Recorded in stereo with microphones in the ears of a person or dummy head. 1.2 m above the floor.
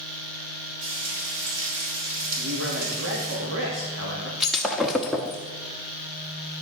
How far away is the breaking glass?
About 0.7 m.